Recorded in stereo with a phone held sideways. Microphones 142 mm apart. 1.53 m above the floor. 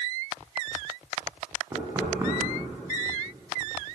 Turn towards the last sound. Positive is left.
turn(degrees=-20)  # may be behind; listen again after turning